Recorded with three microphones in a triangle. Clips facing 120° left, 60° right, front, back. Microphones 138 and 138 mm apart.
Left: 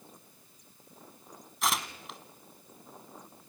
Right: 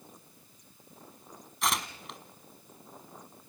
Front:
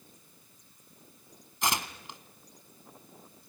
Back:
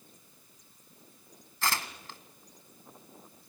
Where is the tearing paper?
35° left, 1.2 m.